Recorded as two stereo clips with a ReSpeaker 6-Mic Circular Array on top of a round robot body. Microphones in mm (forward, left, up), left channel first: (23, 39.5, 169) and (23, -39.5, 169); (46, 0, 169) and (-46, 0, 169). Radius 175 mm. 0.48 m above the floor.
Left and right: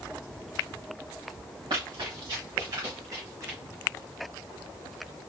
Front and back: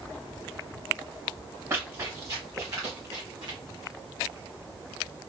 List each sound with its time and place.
1.7 s running footsteps: 120° right, 3 m; by 3.6 s 145° right, 2 m